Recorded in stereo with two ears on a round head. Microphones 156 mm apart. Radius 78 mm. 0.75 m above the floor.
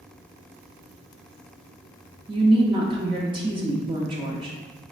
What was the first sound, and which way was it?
A woman speaking, 25° right (ahead or behind).